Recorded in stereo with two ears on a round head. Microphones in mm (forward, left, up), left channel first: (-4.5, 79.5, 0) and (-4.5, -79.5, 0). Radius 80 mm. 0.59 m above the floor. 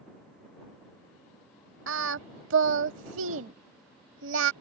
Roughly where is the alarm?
I don't hear an alarm.